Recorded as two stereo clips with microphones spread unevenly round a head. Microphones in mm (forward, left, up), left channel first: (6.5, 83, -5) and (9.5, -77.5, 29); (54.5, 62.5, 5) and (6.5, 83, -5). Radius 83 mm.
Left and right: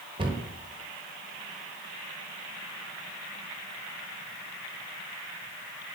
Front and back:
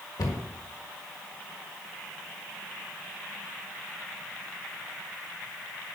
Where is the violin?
I don't hear a violin.